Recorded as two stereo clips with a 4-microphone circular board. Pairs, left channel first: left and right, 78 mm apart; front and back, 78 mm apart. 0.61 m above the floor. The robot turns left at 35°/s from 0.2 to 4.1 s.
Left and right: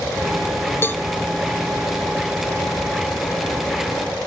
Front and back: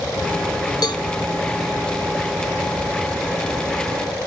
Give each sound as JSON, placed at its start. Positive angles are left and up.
{"t": 0.8, "sound": "a cowbell", "azimuth_deg": 30, "distance_m": 1.2}